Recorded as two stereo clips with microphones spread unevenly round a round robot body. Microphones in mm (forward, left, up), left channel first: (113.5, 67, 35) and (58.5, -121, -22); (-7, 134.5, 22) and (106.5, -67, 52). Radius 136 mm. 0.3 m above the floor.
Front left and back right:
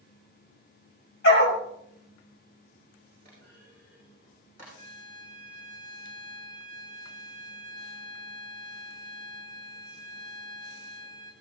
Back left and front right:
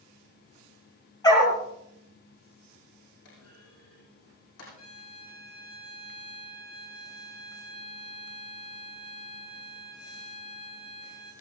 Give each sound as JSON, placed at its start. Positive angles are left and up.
{"t": 1.2, "sound": "a dog barking", "azimuth_deg": 45, "distance_m": 4.5}
{"t": 3.2, "sound": "a clunk", "azimuth_deg": 155, "distance_m": 9.0}
{"t": 4.8, "sound": "a violin", "azimuth_deg": 165, "distance_m": 2.5}